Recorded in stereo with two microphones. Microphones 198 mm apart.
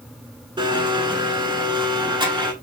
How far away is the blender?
About 0.8 m.